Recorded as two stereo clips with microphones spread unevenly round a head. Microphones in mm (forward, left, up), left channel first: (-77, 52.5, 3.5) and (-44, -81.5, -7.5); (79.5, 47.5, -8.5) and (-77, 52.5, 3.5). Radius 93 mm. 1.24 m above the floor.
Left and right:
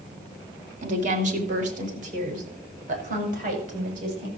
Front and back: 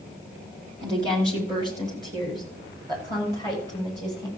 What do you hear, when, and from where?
0.8 s a woman speaking: 110° right, 3 m